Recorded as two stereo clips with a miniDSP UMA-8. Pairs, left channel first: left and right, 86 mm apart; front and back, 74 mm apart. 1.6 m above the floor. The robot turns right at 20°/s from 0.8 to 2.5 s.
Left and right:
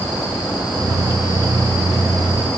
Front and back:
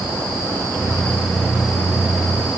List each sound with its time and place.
Only background noise.